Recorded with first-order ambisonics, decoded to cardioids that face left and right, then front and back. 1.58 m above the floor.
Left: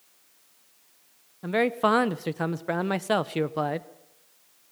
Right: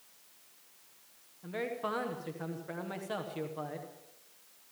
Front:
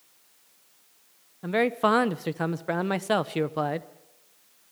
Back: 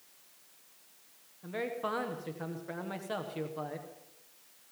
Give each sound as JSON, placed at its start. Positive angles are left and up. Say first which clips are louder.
{"t": 1.4, "sound": "a man speaking", "louder": "left 13 dB, front 12 dB", "azimuth_deg": 45, "distance_m": 0.8}